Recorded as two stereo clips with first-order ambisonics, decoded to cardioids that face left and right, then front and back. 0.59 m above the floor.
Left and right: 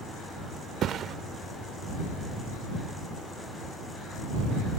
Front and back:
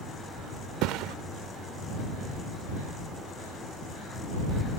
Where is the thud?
145° right.